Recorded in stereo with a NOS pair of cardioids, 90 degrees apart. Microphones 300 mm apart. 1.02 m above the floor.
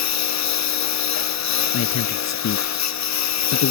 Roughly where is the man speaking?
Ahead left.